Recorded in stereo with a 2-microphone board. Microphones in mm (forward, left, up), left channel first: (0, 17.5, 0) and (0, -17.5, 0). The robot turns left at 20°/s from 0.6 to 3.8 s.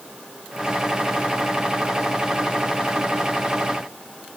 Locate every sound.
Only background noise.